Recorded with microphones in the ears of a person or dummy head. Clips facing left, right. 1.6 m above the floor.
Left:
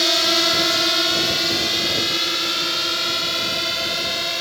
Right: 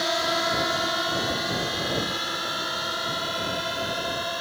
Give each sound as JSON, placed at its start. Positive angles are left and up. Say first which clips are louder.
{"t": 0.0, "sound": "a drone", "louder": "left 4 dB", "side_deg": 45}